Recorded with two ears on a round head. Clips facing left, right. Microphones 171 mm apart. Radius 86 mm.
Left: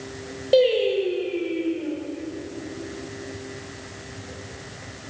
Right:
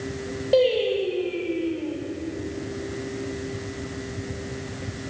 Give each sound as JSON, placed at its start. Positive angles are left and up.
{"t": 0.5, "sound": "singing", "side_deg": 15, "distance_m": 5.5}